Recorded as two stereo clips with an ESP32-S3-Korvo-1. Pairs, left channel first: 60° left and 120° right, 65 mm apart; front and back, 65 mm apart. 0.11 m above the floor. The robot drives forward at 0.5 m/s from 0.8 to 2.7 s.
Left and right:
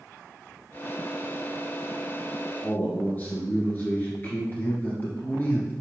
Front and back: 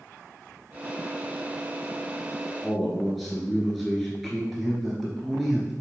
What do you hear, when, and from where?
2.6 s a man speaking: 85° left, 1.6 m